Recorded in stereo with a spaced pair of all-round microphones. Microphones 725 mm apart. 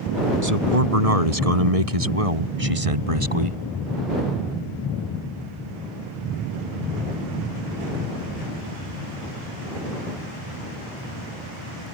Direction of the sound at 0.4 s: 55° right (ahead or behind).